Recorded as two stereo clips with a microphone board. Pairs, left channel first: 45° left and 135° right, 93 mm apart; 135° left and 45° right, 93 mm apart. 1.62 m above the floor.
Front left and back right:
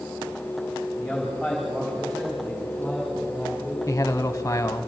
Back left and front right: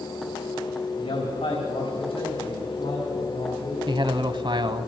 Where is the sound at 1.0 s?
135° left, 3.5 m.